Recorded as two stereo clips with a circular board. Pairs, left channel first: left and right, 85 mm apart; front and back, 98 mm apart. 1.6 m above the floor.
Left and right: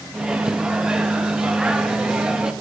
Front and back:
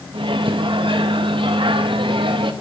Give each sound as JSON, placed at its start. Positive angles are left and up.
{"t": 0.1, "sound": "a microwave", "azimuth_deg": -170, "distance_m": 0.5}